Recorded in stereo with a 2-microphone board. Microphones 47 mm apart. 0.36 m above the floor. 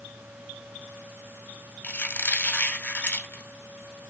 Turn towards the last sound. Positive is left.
turn(degrees=40)  # may be behind; listen again after turning